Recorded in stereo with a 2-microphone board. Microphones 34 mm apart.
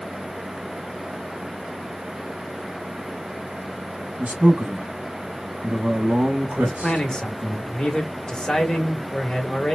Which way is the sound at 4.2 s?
45° right (ahead or behind).